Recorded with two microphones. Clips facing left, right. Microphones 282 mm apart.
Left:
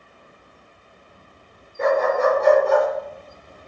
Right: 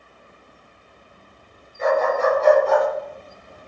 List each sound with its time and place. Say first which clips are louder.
1.8 s a dog barking: left 1 dB; 60° left (ahead or behind), 5 m; by 2.9 s 50° left (ahead or behind), 6 m